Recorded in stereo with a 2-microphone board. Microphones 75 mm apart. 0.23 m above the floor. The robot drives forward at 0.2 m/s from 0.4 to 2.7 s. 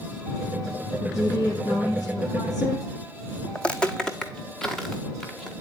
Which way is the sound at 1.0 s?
55° left (ahead or behind).